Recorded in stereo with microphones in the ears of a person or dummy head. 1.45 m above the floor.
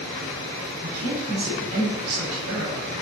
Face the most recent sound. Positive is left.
turn(degrees=-55)  # may be behind; listen again after turning